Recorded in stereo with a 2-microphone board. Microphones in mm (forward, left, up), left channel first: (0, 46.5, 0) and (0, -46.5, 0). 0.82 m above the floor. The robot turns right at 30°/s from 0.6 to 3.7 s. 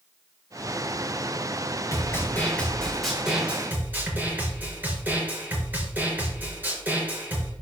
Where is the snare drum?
145° left, 4 m; by 7.5 s 160° right, 4 m.